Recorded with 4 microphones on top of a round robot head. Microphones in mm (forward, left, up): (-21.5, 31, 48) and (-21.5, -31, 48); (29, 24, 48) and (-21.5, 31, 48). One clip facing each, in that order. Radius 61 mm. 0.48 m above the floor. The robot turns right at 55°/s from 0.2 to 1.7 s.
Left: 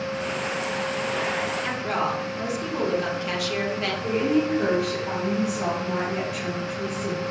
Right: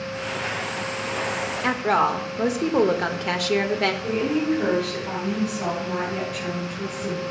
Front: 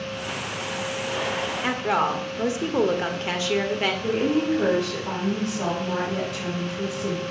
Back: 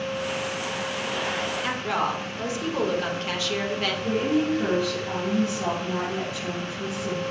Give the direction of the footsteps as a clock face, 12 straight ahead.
I don't hear footsteps.